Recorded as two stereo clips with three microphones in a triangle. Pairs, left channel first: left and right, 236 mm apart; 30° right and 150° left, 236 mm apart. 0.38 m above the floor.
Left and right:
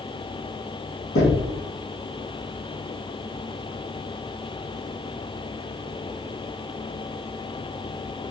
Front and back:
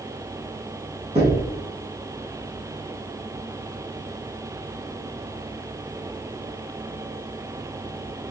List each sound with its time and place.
1.1 s knocking: 85° left, 2.5 m